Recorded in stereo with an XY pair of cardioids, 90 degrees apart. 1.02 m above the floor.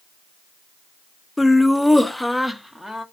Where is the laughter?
15° left, 0.5 m; by 3.0 s 10° left, 1.5 m.